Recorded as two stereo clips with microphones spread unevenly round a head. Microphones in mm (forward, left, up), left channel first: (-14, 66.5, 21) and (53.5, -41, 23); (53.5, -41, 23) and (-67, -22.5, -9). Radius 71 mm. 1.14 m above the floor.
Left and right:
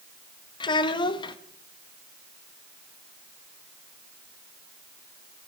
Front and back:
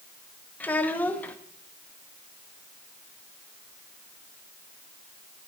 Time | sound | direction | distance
0.6 | a child speaking | 65° left | 0.9 m